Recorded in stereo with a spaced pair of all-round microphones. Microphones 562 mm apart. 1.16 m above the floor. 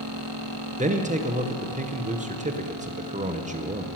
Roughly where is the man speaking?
Centre.